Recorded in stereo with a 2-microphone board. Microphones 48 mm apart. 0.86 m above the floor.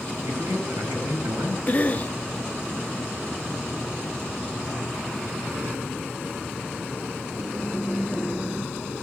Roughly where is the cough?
Left.